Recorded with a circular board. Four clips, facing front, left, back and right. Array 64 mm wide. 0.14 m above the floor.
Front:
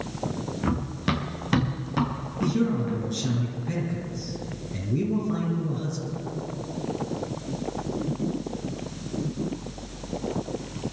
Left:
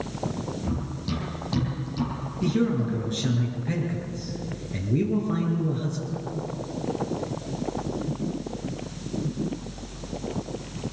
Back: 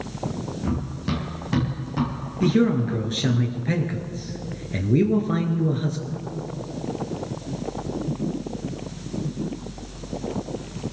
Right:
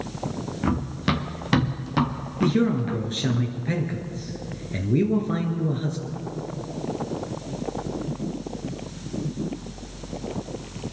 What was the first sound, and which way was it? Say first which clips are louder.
Running footsteps: right 6 dB, front 2 dB; 60° right.